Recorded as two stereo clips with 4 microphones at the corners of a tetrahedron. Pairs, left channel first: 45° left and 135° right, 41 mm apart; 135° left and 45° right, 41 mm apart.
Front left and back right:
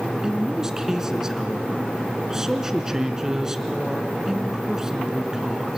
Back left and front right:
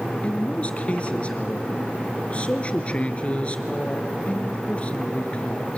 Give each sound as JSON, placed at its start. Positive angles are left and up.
{"t": 0.2, "sound": "a man speaking", "azimuth_deg": 160, "distance_m": 1.8}